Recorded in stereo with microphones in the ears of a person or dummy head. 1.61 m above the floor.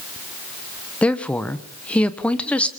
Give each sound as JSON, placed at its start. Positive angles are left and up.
{"t": 1.0, "sound": "a woman speaking", "side_deg": 10, "distance_m": 1.2}